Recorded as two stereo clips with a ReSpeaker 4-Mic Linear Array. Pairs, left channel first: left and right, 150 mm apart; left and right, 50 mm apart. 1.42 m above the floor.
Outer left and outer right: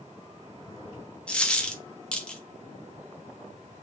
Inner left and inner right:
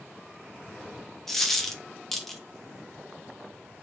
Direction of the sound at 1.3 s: 5° left (ahead or behind).